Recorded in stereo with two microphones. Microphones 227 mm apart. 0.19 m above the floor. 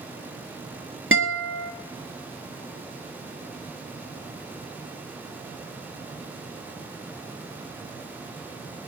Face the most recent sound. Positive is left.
turn(degrees=-60)  # may be behind; listen again after turning